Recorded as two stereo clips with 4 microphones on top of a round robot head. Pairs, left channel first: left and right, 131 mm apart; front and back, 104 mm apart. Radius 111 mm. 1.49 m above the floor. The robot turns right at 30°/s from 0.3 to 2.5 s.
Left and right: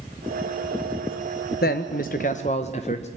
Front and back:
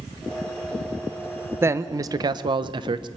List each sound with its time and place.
1.6 s a man speaking: 115° left, 0.8 m; by 3.1 s 145° left, 0.8 m